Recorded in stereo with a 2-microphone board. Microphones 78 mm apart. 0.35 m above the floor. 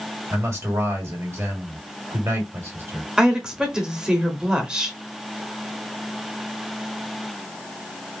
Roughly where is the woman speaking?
Centre.